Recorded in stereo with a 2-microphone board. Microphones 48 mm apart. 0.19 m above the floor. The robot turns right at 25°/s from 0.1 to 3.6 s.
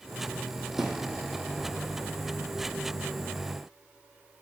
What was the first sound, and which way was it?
A thud, 10° right (ahead or behind).